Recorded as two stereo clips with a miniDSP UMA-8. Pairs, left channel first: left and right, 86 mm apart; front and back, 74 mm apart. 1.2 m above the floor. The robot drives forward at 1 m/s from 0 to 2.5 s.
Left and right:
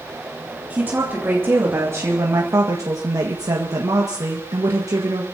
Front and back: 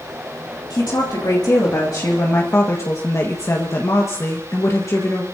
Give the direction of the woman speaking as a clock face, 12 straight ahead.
1 o'clock.